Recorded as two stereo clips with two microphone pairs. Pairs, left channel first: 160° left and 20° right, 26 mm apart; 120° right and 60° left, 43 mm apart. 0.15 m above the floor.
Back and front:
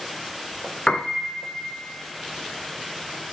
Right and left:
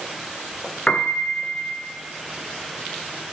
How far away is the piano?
About 0.6 m.